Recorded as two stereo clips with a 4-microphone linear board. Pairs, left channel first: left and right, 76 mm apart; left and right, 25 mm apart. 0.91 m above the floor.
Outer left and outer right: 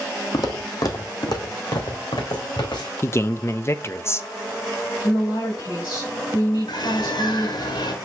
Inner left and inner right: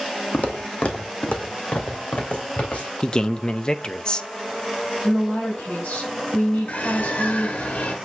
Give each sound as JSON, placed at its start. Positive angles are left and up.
{"t": 0.3, "sound": "footsteps", "side_deg": 50, "distance_m": 1.6}
{"t": 3.0, "sound": "a man speaking", "side_deg": 35, "distance_m": 0.6}
{"t": 5.0, "sound": "a woman speaking", "side_deg": 80, "distance_m": 4.5}
{"t": 6.7, "sound": "a bird", "side_deg": 80, "distance_m": 1.3}